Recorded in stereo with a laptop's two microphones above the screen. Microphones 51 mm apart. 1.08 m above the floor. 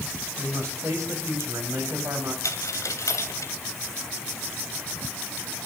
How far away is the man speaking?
About 7.5 m.